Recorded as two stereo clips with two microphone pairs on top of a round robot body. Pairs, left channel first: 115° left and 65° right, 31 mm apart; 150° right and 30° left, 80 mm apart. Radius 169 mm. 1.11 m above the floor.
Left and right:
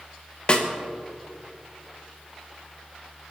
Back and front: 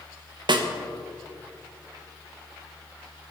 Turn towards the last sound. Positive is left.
turn(degrees=55)